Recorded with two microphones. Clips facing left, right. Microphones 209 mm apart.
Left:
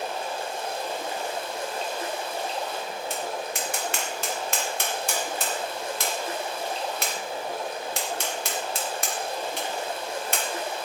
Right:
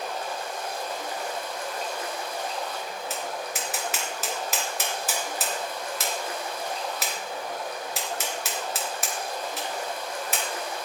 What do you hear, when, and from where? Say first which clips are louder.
0.0 s running water: left 1 dB; 25° left (ahead or behind), 2 m
3.1 s tapping: left 2 dB; 5° right (ahead or behind), 1.9 m